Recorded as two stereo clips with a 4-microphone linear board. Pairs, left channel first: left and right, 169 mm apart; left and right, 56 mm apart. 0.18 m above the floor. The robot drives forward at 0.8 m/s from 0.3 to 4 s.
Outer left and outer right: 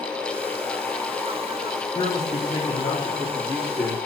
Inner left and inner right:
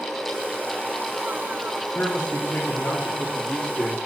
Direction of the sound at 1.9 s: 40° left (ahead or behind).